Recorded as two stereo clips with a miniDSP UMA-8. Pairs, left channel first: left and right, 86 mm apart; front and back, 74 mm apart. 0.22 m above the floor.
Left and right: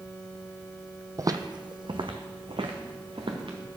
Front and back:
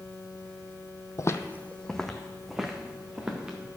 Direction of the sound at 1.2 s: 45° right.